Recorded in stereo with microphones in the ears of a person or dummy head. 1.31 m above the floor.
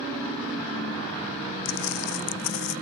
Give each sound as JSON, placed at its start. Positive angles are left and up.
{"t": 1.6, "sound": "footsteps", "side_deg": 75}